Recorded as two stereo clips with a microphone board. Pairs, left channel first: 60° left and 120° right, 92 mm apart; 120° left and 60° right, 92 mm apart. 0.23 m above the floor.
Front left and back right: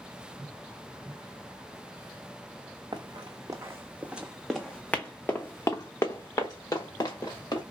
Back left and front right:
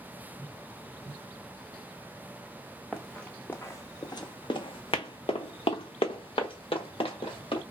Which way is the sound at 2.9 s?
150° right.